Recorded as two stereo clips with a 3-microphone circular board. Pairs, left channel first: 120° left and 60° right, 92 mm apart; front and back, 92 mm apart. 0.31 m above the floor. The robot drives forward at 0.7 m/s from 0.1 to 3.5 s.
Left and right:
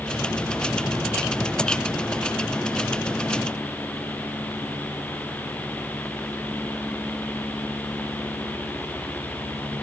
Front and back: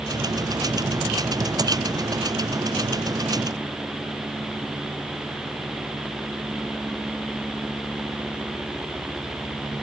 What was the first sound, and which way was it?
Only background noise.